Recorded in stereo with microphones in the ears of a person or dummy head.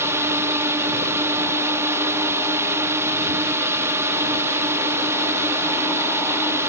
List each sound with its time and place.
0.0 s a drone: 10° right (ahead or behind)